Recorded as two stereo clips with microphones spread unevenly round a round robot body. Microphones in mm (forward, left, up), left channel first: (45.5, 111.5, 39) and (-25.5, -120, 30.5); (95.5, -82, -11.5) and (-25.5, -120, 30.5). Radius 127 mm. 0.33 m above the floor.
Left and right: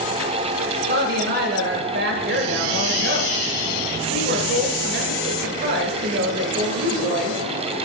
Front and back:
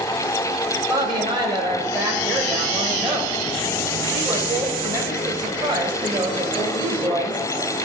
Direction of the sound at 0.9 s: 100° right.